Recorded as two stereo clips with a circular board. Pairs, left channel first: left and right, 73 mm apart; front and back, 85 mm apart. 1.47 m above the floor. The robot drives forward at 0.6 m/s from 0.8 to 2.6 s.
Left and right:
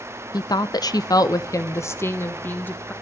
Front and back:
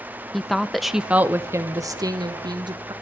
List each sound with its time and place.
0.3 s a woman speaking: 90° left, 0.7 m; by 2.9 s 150° left, 1.3 m